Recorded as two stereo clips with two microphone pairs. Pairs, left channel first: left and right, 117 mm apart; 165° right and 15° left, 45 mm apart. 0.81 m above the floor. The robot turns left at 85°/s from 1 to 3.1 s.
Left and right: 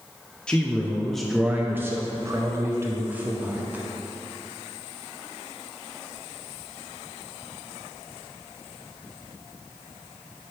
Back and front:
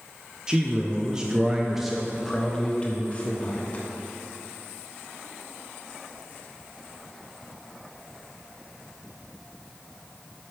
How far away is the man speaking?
About 0.5 m.